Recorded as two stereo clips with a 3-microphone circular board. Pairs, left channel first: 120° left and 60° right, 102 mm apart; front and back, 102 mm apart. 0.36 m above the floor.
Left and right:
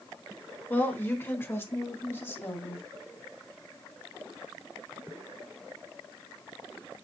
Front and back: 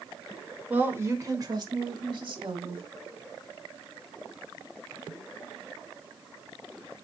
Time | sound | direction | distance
0.7 | a woman speaking | 145° left | 0.8 m